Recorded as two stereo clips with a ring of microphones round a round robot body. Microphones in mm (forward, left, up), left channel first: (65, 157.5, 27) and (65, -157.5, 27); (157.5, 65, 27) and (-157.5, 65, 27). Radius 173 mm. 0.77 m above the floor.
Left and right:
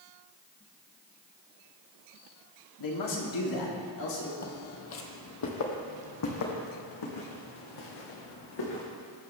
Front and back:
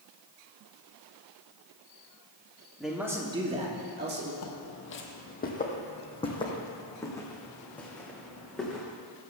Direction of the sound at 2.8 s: 90° left.